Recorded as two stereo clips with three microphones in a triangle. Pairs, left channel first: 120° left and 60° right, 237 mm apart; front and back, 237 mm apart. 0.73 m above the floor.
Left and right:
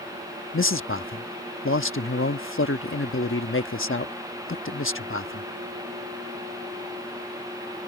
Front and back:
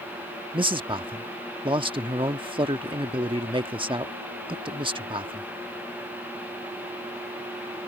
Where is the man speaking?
115° left.